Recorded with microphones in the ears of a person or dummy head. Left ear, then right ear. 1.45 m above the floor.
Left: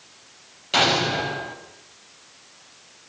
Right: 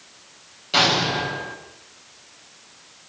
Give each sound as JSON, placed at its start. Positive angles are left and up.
{"t": 0.7, "sound": "an explosion", "side_deg": 20, "distance_m": 6.5}